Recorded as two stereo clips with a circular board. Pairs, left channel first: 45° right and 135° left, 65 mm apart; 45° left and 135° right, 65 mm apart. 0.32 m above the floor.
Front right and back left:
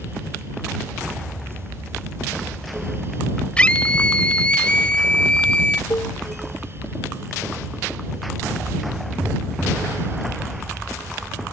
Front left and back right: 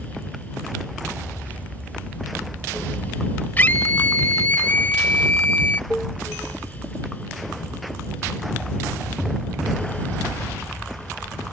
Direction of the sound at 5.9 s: 30° right.